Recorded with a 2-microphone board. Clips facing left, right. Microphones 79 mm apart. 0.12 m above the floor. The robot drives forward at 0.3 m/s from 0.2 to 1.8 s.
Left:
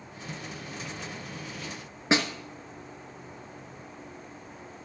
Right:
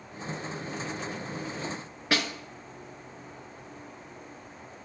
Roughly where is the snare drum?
Left.